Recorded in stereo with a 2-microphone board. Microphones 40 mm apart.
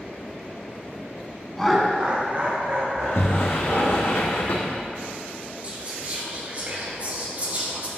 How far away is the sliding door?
About 1.7 m.